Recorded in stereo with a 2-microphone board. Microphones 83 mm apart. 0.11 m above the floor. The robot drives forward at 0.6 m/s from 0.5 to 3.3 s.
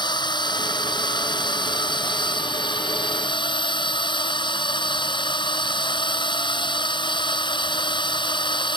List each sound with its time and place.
0.0 s a drone: 60° left (ahead or behind)